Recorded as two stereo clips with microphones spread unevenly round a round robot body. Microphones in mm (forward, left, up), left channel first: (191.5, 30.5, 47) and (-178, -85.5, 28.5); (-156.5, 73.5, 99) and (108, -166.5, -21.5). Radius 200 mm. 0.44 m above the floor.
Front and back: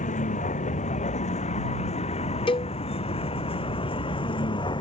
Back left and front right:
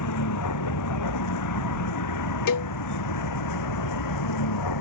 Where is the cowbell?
95° left.